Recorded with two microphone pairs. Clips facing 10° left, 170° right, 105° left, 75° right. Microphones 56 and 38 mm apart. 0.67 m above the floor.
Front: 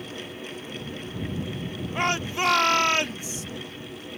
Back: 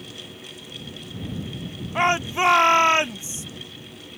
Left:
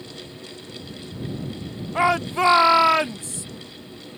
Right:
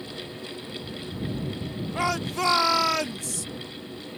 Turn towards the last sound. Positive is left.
turn(degrees=135)